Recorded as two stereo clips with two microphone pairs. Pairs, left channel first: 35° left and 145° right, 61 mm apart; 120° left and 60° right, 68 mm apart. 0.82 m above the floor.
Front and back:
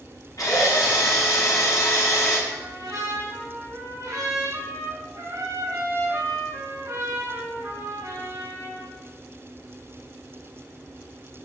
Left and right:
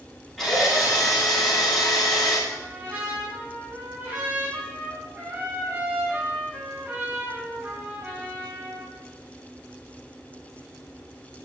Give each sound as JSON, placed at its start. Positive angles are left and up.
{"t": 0.4, "sound": "a drill", "azimuth_deg": 30, "distance_m": 5.5}
{"t": 2.5, "sound": "a trumpet", "azimuth_deg": -120, "distance_m": 5.5}